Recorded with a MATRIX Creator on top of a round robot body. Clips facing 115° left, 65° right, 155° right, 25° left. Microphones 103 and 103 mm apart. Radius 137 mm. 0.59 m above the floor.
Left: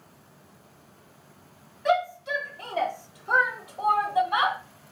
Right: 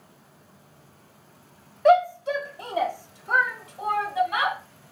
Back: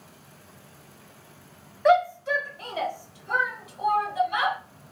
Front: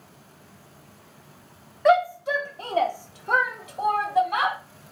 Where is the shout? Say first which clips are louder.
Right 7 dB, front 1 dB; 70° right, 0.9 m; by 4.6 s 65° left, 1.6 m.